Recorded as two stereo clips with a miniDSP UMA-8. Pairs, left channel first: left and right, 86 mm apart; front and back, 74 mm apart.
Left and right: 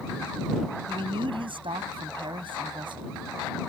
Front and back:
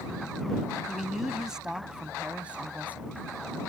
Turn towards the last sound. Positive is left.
turn(degrees=-115)